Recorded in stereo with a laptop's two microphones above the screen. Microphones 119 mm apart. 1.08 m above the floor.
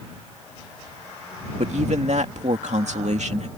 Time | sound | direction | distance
1.6 | a man speaking | 70° right (ahead or behind) | ?